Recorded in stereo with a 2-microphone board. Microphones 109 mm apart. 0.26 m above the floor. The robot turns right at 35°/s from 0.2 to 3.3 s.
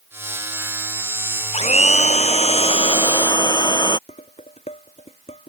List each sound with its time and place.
1.5 s a blender: 80° left; by 4.0 s 140° left
4.1 s dishes clattering: 80° left